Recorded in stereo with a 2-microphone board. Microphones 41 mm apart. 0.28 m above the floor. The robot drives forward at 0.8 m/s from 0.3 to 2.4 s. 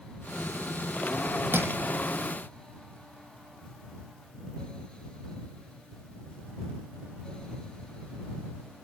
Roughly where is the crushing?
Right.